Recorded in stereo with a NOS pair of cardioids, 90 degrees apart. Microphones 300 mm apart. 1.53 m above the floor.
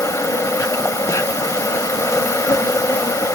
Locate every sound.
0.0 s an insect: 10° left, 1.2 m